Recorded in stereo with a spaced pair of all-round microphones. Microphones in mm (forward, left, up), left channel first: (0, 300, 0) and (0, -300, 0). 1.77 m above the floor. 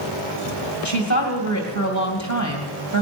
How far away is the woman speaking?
About 2.5 m.